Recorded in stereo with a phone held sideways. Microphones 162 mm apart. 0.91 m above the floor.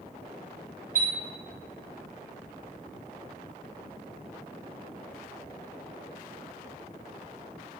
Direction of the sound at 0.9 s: 65° right (ahead or behind).